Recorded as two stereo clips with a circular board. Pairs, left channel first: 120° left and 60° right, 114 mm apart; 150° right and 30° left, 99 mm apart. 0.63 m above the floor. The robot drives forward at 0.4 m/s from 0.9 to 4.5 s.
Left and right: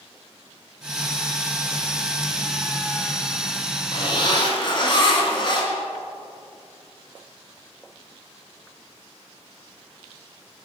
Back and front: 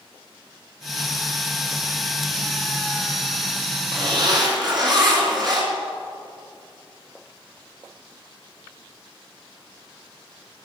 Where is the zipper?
70° left, 4 m; by 5.7 s 75° left, 4 m.